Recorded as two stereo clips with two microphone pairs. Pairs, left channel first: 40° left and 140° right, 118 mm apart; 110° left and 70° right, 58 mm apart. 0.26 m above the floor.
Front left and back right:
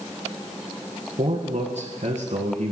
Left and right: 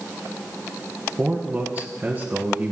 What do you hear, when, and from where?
1.2 s a man speaking: 135° right, 2.0 m